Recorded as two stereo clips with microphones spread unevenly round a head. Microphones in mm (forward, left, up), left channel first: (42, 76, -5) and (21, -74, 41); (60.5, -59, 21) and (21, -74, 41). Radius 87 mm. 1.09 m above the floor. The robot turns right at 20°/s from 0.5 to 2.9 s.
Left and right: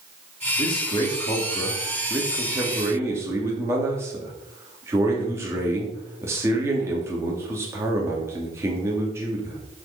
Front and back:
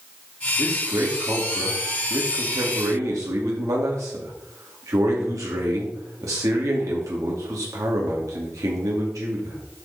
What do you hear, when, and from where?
0.6 s a man speaking: 135° left, 3 m; by 9.6 s straight behind, 3 m